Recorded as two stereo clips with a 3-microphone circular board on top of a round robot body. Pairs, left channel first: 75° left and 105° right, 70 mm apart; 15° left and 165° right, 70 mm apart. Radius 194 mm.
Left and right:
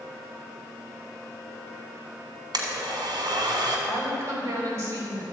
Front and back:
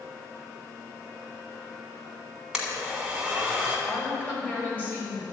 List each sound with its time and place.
2.5 s a blender: 80° right, 1.5 m
3.9 s a woman speaking: 55° right, 3 m